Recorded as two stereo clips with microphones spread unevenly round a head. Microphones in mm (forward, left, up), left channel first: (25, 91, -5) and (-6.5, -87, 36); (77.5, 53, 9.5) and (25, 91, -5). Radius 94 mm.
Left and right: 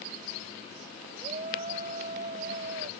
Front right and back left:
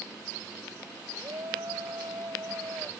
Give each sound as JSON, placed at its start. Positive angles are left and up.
{"t": 1.2, "sound": "a shout", "azimuth_deg": -160}